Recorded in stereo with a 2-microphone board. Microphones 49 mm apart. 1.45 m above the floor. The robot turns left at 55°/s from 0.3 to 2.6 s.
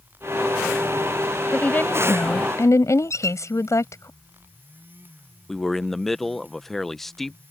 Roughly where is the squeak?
Left.